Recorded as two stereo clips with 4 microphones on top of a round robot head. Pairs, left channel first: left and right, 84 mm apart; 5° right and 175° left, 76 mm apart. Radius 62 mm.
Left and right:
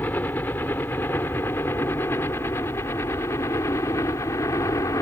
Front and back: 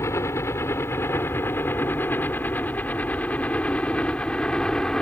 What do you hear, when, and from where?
0.0 s a helicopter: 25° left; by 5.0 s 70° left